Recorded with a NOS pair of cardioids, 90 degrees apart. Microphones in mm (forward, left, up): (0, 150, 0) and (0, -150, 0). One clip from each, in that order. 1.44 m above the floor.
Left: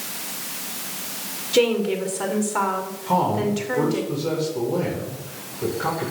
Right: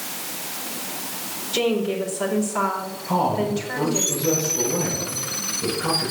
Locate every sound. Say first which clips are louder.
1.5 s a woman speaking: left 3 dB; 30° left, 5 m
3.1 s a man speaking: left 1 dB; 45° left, 6.5 m